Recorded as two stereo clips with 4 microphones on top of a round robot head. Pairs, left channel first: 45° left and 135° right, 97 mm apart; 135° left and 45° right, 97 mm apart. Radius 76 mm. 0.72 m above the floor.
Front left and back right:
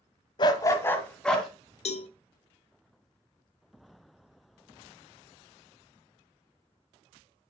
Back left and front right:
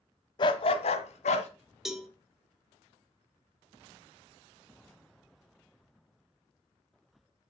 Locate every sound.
0.4 s a dog barking: 90° left, 1.2 m; by 1.5 s 130° left, 1.9 m
1.9 s a cowbell: 45° left, 1.3 m